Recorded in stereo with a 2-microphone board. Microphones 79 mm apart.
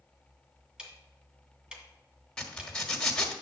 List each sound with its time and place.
0.8 s ticking: 10° right (ahead or behind), 1.9 m
2.4 s a zipper: 10° left (ahead or behind), 1.4 m